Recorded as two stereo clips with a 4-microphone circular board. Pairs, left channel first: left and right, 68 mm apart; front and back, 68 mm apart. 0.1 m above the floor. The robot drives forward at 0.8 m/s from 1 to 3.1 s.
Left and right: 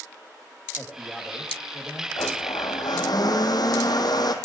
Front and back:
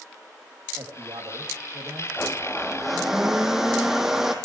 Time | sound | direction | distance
0.8 | a man speaking | 175° left | 5 m
2.2 | a blender | 70° left | 1.8 m